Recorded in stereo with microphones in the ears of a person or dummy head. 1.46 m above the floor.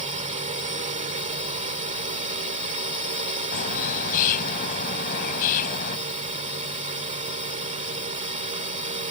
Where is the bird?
50° left (ahead or behind).